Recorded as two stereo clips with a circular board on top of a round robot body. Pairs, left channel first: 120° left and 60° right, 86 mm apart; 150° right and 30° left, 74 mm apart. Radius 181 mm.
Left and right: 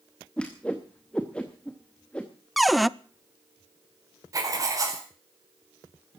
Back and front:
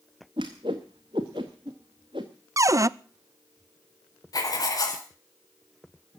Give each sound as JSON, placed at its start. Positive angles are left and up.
{"t": 0.4, "sound": "a whoosh", "azimuth_deg": 45, "distance_m": 0.6}
{"t": 2.6, "sound": "a cupboard door", "azimuth_deg": 30, "distance_m": 0.7}
{"t": 4.3, "sound": "writing", "azimuth_deg": -110, "distance_m": 4.5}